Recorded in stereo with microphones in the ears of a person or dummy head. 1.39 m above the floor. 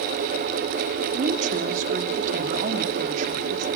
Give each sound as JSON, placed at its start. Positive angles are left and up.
{"t": 1.1, "sound": "a woman speaking", "side_deg": -45, "distance_m": 2.5}